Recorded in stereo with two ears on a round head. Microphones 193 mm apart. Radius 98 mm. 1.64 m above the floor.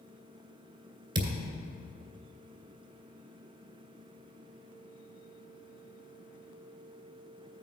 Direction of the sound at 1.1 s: 20° right (ahead or behind).